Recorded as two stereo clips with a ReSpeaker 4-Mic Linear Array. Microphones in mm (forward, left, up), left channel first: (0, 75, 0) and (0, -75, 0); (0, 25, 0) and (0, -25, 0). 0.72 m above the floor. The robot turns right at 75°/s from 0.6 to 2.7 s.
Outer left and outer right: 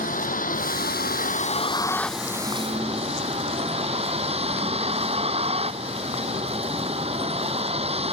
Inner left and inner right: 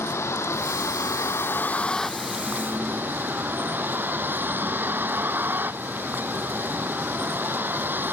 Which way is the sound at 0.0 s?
65° left.